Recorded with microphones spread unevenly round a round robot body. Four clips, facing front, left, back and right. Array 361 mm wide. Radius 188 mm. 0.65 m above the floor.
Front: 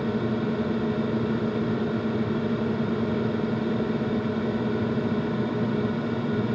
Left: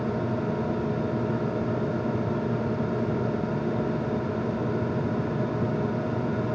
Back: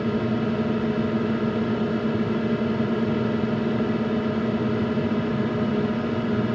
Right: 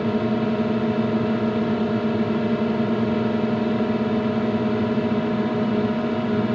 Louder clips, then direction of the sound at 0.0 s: Right 6 dB, back 2 dB; 100° right.